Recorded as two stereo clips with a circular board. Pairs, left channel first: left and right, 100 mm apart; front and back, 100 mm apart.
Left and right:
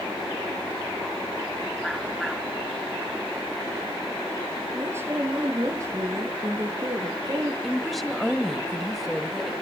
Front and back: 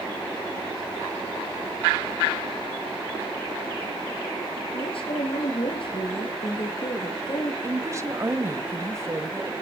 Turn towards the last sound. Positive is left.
turn(degrees=180)